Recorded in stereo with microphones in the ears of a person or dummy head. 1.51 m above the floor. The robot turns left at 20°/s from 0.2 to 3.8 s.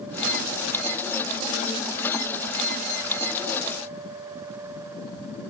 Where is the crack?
I don't hear a crack.